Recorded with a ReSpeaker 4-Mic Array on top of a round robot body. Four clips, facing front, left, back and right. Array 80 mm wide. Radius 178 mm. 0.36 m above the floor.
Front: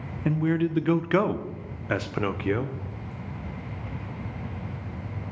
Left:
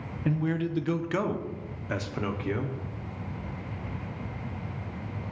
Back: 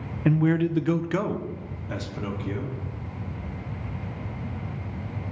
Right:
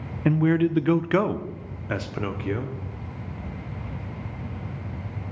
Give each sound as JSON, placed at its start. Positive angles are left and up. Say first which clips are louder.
{"t": 0.2, "sound": "a man speaking", "louder": "right 8 dB, back 2 dB", "azimuth_deg": -110, "distance_m": 0.9}